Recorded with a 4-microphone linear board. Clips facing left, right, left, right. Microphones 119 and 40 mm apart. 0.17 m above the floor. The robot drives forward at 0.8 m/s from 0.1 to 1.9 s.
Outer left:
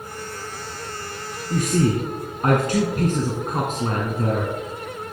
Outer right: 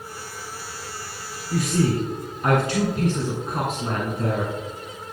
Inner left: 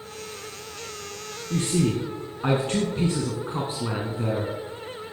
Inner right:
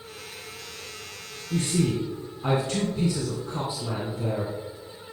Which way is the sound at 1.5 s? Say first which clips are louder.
Outer left 2 dB, inner left 1 dB; 45° left (ahead or behind).